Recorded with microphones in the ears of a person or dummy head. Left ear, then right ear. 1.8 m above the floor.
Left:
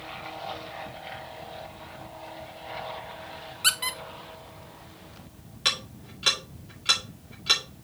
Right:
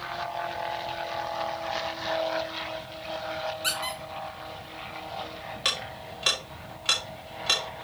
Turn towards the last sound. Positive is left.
turn(degrees=-5)  # may be behind; listen again after turning